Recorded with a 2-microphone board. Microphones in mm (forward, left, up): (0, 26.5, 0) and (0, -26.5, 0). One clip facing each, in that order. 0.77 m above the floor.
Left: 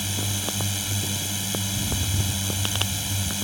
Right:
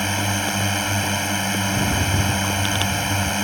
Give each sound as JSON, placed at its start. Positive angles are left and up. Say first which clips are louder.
{"t": 0.0, "sound": "a drone", "louder": "right 8 dB", "side_deg": -50}
{"t": 1.7, "sound": "a rattle", "louder": "right 9 dB", "side_deg": -65}